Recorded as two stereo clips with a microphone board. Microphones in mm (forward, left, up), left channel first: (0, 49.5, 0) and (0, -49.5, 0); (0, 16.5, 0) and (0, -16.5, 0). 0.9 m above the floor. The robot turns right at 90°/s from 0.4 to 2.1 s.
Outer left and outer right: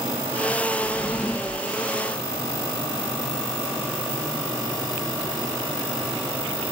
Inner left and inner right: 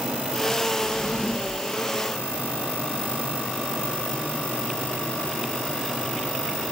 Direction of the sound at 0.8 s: 85° left.